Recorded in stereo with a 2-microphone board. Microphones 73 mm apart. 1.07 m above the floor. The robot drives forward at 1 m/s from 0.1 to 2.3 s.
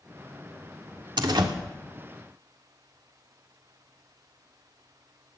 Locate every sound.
1.2 s a door slam: 80° right, 1.7 m; by 1.5 s 85° right, 1.6 m